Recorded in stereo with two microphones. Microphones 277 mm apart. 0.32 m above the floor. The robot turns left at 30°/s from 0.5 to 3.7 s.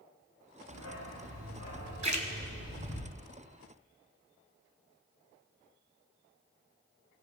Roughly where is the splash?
Right.